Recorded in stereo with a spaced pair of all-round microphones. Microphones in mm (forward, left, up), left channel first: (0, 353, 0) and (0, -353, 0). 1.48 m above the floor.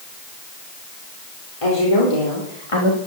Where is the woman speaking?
45° left (ahead or behind), 4 m; by 3.0 s 40° left (ahead or behind), 2.0 m.